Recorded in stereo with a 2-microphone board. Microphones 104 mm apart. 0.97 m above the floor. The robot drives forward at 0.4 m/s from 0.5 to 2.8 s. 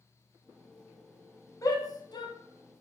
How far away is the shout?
About 0.8 m.